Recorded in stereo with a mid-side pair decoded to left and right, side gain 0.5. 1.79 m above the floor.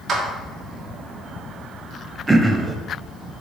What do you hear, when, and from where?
0.1 s a clap: 45° right, 3 m
2.3 s throat clearing: 15° right, 1.1 m